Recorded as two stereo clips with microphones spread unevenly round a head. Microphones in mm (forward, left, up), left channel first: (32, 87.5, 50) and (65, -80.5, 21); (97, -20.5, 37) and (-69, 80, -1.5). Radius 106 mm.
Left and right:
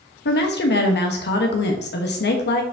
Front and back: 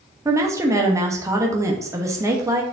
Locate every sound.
0.2 s a woman speaking: 75° left, 1.3 m